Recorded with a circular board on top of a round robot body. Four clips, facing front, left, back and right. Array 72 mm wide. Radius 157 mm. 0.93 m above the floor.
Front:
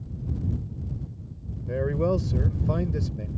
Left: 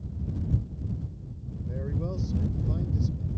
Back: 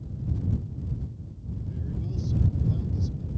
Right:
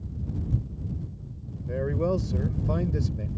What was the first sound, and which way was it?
A man speaking, 25° right.